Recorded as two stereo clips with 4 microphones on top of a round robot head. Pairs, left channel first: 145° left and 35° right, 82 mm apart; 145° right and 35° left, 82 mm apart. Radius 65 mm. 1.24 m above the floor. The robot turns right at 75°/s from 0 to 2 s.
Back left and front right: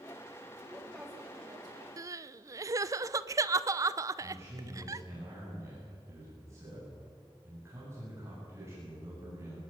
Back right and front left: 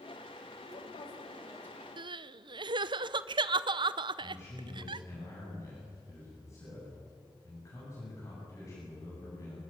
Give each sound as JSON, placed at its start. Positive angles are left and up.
{"t": 0.6, "sound": "a woman speaking", "azimuth_deg": -155, "distance_m": 7.0}
{"t": 2.0, "sound": "crying", "azimuth_deg": 15, "distance_m": 0.8}
{"t": 4.2, "sound": "a man speaking", "azimuth_deg": -90, "distance_m": 9.0}